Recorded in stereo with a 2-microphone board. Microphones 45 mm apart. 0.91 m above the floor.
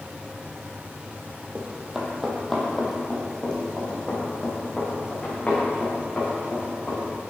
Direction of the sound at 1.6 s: 20° right (ahead or behind).